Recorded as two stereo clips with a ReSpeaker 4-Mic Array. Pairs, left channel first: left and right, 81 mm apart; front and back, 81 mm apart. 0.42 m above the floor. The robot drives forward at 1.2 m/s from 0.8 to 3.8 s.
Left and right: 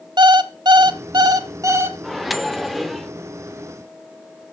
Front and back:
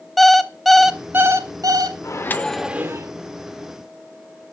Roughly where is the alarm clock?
Right.